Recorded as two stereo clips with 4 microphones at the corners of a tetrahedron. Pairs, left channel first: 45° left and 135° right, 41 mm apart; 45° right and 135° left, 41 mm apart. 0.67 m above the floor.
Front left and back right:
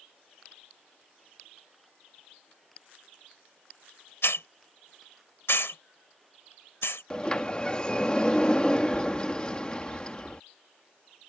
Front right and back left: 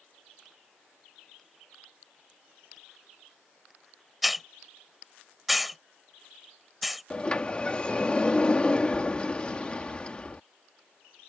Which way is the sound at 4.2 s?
50° left.